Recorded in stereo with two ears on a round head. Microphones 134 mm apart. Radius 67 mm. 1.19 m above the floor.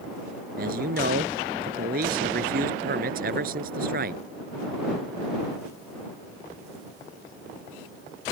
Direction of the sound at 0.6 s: 65° right (ahead or behind).